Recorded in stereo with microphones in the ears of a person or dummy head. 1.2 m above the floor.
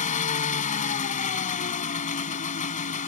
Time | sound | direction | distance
0.0 | an engine running | 45° left (ahead or behind) | ?